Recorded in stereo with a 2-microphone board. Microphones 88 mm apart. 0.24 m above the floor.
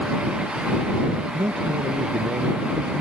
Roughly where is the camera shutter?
I don't hear a camera shutter.